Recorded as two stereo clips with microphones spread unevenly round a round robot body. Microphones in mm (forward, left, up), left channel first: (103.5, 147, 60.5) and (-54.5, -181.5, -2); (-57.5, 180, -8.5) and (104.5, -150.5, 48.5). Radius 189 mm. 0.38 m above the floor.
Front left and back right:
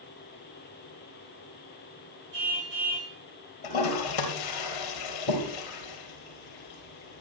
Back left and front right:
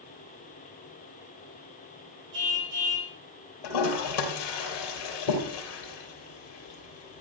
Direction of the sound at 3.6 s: 95° left.